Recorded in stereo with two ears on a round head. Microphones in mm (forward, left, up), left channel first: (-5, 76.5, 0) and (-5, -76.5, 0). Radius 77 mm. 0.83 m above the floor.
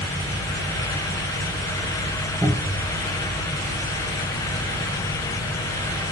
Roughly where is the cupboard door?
Centre.